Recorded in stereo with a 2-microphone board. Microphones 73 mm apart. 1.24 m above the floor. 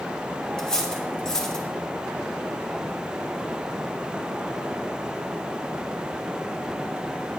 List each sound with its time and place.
0.6 s cutlery clinking: 10° left (ahead or behind), 1.3 m